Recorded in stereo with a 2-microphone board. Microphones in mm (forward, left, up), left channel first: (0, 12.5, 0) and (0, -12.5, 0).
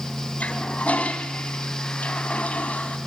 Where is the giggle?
No giggle in this recording.